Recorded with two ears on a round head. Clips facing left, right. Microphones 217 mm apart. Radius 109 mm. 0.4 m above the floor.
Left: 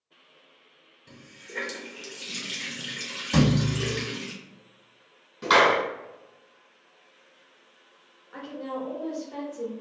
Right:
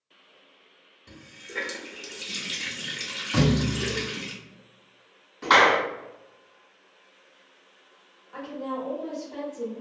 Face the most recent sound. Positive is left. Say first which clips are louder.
# right 1 dB
turn(degrees=25)  # may be behind; listen again after turning